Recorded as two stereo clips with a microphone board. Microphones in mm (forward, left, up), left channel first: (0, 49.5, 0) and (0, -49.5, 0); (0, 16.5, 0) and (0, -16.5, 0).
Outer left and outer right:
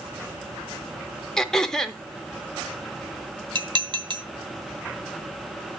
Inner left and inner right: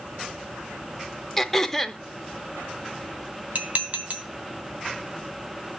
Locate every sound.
1.4 s throat clearing: 5° left (ahead or behind), 0.6 m
3.5 s dishes clattering: 50° right (ahead or behind), 0.9 m